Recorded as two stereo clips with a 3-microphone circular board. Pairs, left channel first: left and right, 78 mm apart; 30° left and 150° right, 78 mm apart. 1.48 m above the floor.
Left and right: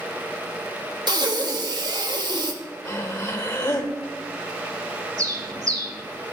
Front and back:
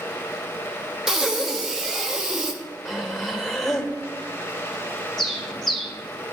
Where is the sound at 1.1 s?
65° right, 0.9 m.